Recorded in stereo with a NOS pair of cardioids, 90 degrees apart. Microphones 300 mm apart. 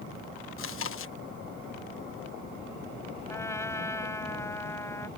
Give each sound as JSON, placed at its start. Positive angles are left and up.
{"t": 0.6, "sound": "chewing", "azimuth_deg": 45}
{"t": 3.3, "sound": "a trumpet", "azimuth_deg": 10}